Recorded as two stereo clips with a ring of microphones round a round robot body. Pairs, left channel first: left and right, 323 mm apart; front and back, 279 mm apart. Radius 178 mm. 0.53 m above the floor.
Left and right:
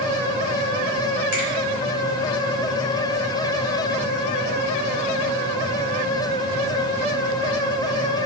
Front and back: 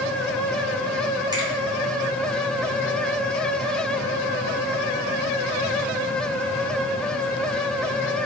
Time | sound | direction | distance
1.3 | a finger snap | 105° left | 1.8 m